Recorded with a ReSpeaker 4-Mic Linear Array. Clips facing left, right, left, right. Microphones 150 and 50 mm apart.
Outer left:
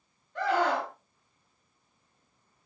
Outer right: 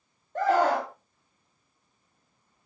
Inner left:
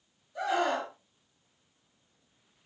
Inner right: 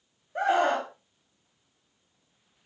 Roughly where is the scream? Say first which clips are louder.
Outer right 4 dB, inner right 5 dB; right.